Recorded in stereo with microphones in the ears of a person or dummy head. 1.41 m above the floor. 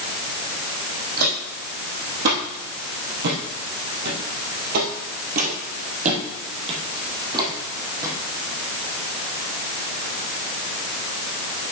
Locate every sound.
1.2 s footsteps: 55° right (ahead or behind), 3.5 m; by 8.1 s 20° right (ahead or behind), 3.5 m